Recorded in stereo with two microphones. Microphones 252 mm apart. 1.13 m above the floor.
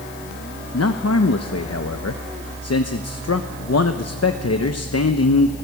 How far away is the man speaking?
About 1.0 m.